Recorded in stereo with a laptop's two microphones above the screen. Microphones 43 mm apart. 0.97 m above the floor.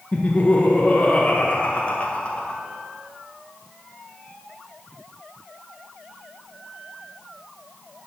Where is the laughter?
30° left (ahead or behind), 0.6 m.